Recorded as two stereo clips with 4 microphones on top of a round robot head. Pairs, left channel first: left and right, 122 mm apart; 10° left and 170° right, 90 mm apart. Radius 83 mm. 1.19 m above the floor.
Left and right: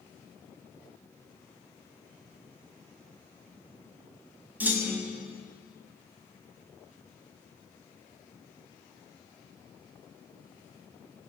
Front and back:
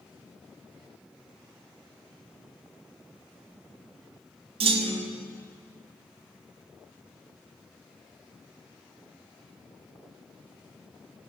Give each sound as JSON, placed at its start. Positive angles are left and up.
{"t": 4.6, "sound": "a clunk", "azimuth_deg": -170, "distance_m": 1.3}